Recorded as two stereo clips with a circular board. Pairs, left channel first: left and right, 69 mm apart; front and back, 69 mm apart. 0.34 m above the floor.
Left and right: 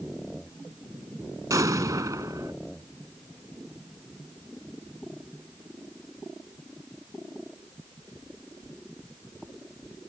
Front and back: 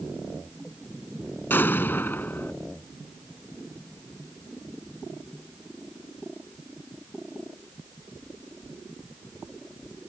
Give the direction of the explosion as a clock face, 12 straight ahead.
2 o'clock.